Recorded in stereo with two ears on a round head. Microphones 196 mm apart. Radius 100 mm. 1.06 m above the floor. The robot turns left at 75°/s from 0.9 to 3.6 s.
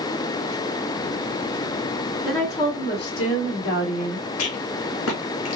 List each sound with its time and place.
2.2 s a woman speaking: 175° right, 1.8 m; by 4.3 s 80° left, 1.8 m
4.4 s a rattle: 75° left (ahead or behind), 1.6 m